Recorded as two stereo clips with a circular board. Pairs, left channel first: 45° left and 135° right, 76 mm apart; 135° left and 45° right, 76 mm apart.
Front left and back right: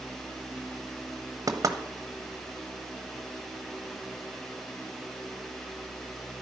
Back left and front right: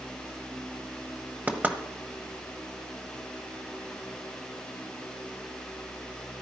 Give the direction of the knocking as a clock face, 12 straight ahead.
4 o'clock.